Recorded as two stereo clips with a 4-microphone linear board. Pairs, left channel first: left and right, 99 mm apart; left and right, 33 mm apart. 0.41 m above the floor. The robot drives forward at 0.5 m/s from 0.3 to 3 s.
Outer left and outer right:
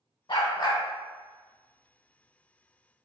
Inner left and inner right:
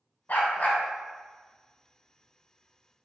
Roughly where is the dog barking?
Left.